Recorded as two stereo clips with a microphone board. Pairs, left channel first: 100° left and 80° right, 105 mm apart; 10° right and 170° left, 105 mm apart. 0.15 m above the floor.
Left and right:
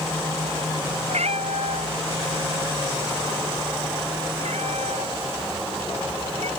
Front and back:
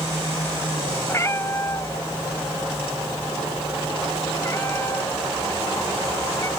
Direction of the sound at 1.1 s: 75° right.